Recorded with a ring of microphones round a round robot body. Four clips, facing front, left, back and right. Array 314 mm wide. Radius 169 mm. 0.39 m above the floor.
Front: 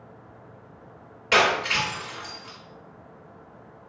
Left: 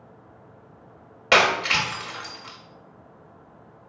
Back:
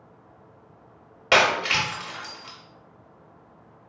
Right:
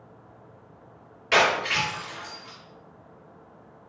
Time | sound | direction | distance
1.3 | breaking glass | 125° left | 1.0 m